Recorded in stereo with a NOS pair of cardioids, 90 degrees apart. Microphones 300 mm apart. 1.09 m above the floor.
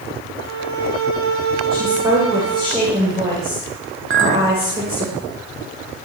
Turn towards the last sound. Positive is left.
turn(degrees=-40)